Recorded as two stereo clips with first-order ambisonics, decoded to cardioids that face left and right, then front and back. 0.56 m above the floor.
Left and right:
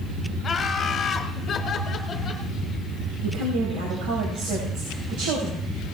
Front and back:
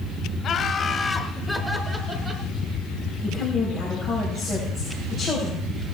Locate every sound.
0.4 s laughter: 30° left, 1.3 m; by 2.5 s 140° left, 1.3 m
3.2 s a woman speaking: 100° right, 3.5 m